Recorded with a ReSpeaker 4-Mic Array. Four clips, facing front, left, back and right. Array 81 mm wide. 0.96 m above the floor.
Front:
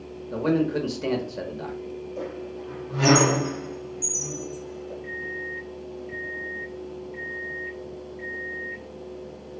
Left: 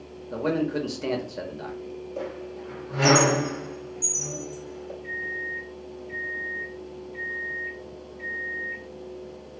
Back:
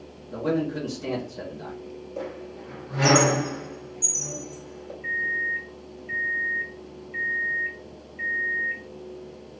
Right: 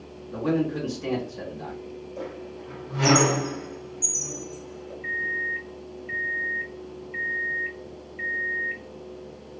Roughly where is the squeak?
Behind left.